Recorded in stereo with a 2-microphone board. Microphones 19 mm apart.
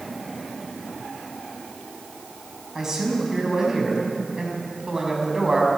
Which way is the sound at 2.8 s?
25° right (ahead or behind).